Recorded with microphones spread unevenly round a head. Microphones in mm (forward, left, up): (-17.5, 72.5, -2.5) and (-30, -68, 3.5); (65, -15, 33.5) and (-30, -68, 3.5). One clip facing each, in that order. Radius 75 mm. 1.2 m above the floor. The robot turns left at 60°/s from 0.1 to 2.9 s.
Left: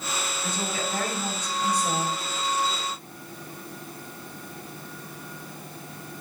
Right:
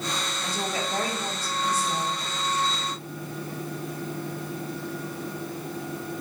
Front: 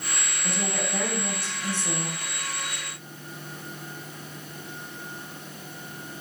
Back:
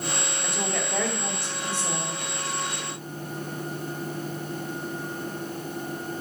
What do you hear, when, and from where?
0.4 s a woman speaking: 115° right, 2.5 m; by 2.2 s 140° left, 2.5 m